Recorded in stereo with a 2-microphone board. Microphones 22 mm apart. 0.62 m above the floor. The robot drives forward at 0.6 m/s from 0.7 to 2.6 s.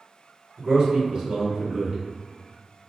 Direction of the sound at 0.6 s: 30° right (ahead or behind).